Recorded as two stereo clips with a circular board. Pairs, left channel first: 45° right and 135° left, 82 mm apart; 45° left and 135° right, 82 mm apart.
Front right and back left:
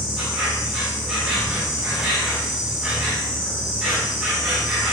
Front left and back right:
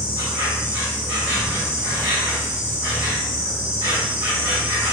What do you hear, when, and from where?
0.0 s an insect: 140° right, 1.1 m